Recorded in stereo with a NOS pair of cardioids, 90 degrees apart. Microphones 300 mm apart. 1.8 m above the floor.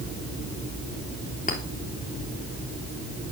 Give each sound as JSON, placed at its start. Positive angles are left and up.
{"t": 1.5, "sound": "a clink", "azimuth_deg": 25, "distance_m": 3.5}